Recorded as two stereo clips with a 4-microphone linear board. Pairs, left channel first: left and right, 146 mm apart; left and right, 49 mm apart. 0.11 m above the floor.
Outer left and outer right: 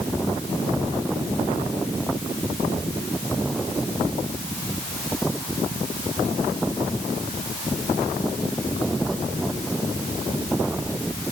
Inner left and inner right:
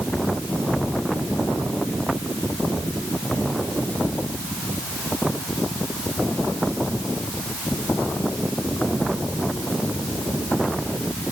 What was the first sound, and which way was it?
Only background noise.